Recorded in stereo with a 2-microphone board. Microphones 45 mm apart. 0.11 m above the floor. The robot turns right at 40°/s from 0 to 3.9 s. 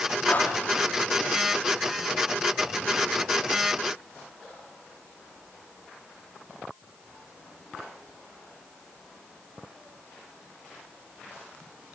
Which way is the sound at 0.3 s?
35° left (ahead or behind).